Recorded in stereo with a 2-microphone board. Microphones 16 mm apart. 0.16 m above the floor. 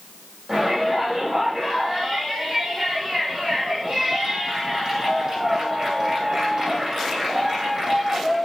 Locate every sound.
0.5 s a shout: 35° right (ahead or behind), 7.5 m